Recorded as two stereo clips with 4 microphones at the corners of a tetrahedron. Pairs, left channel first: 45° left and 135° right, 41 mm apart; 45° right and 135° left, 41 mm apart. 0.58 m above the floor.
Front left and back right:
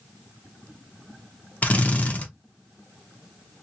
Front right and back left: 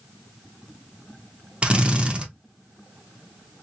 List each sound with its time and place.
1.6 s a drill: 80° left, 0.8 m